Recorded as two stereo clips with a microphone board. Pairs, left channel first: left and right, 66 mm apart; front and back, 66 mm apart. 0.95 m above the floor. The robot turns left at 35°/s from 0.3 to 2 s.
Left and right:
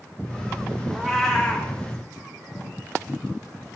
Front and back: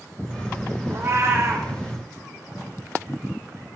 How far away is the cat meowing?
About 0.5 m.